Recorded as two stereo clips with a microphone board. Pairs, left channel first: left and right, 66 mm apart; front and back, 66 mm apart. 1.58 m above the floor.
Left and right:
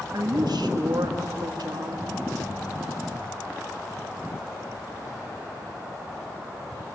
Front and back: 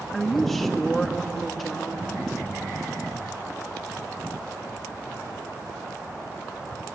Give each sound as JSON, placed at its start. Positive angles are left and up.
{"t": 0.1, "sound": "a woman speaking", "azimuth_deg": -90, "distance_m": 2.0}